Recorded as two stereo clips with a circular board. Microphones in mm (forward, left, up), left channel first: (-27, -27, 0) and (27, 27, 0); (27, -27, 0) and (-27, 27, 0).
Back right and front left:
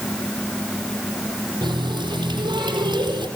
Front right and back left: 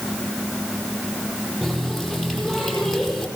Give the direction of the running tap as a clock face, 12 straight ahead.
10 o'clock.